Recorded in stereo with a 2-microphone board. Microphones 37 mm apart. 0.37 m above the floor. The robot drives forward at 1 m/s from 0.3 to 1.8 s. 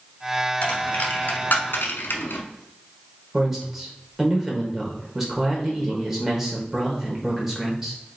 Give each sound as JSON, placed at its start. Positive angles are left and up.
{"t": 0.6, "sound": "a dropped coin", "side_deg": 30, "distance_m": 1.7}
{"t": 3.3, "sound": "a man speaking", "side_deg": -5, "distance_m": 1.1}